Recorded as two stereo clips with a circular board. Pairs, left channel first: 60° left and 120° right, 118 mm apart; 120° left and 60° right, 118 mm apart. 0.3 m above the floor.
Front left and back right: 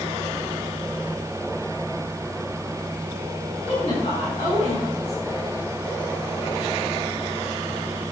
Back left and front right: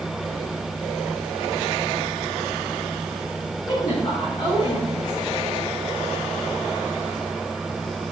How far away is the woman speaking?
About 3.5 m.